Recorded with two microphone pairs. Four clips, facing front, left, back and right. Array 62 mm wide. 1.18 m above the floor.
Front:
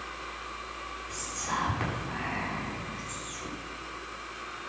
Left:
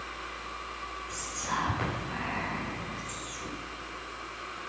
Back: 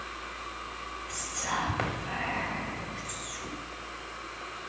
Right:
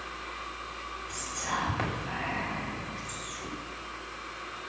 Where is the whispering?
160° right, 6 m.